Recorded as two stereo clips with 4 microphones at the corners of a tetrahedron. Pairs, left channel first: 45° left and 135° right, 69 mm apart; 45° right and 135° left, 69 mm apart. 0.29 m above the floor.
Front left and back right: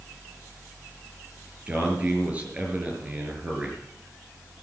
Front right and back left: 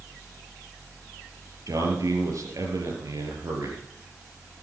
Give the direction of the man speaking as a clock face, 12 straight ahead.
7 o'clock.